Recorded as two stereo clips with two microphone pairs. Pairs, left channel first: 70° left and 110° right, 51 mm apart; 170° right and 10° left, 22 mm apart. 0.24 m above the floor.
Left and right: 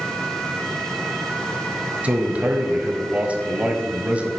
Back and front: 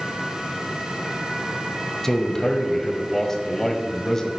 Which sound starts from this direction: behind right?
A man speaking, at 2.0 s.